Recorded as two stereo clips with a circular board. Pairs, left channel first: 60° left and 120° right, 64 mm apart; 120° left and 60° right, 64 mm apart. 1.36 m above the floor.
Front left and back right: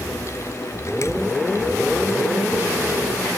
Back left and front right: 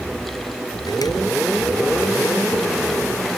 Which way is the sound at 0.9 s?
100° left.